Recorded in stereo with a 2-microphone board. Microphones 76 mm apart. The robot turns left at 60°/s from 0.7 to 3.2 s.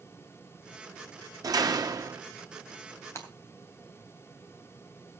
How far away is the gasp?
No gasp in this recording.